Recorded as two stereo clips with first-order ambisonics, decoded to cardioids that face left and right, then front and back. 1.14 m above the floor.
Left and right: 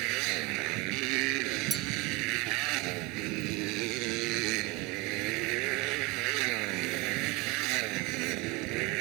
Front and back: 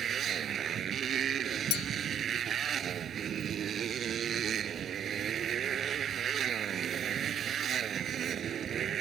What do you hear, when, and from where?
0.0 s a motorcycle: 115° right
1.7 s a clink: 5° right